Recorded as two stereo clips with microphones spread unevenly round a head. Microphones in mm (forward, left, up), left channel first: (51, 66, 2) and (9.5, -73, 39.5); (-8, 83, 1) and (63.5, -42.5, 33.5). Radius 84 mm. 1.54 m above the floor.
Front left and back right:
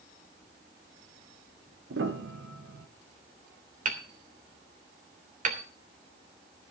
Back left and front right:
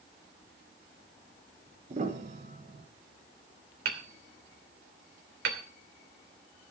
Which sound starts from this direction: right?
Hammering, at 3.9 s.